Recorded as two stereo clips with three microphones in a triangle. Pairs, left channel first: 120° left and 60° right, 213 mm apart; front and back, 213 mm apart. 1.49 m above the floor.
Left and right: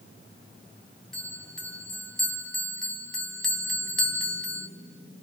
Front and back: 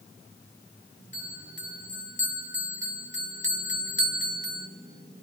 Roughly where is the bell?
Ahead left.